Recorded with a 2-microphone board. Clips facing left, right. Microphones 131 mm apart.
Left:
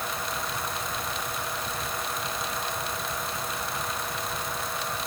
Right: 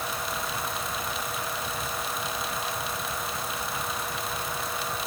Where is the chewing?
I don't hear chewing.